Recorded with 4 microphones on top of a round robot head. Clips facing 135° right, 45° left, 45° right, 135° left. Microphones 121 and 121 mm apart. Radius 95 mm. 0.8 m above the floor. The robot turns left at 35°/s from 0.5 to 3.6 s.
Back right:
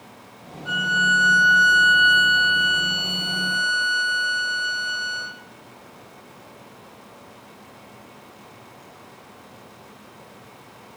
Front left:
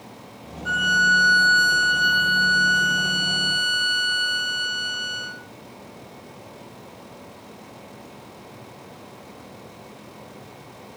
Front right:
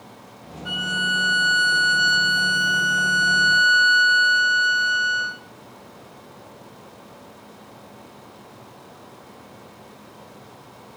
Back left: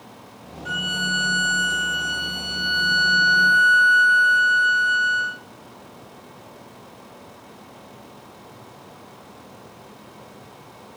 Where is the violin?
Straight ahead, 4 m; by 5.4 s 100° right, 4 m.